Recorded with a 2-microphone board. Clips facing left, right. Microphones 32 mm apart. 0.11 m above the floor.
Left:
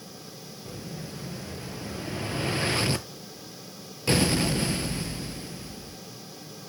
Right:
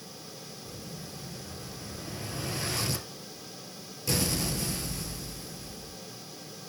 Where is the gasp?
I don't hear a gasp.